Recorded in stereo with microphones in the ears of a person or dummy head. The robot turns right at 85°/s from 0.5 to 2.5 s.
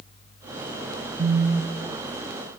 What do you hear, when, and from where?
1.2 s a phone buzzing: 45° right, 0.8 m; by 1.9 s 20° left, 0.8 m